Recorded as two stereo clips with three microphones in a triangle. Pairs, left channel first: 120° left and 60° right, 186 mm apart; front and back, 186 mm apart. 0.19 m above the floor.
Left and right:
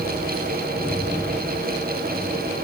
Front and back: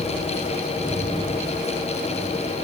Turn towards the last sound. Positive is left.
No sound to turn to.